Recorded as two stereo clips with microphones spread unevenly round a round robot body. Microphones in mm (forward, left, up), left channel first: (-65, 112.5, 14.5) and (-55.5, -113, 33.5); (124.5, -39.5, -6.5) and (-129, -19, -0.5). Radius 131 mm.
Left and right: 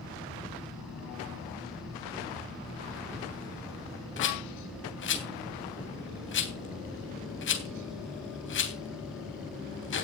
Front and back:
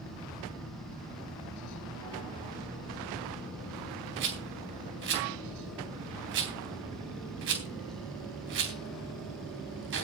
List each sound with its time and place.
4.2 s a rattle: 125° left, 3 m